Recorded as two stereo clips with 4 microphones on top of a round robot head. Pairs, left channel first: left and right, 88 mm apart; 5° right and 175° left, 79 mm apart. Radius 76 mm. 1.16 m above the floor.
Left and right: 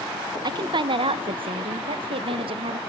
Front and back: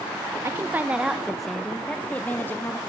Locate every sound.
0.4 s a woman speaking: 125° right, 1.2 m; by 2.8 s 70° right, 2 m